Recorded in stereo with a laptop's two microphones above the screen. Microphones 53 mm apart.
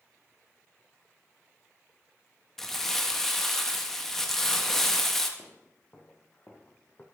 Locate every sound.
2.6 s crumpling: 5° left (ahead or behind), 0.7 m
5.4 s footsteps: 45° left (ahead or behind), 1.5 m; by 7.0 s 35° left (ahead or behind), 2 m